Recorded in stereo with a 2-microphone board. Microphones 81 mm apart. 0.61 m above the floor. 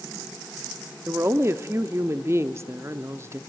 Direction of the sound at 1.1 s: 35° right (ahead or behind).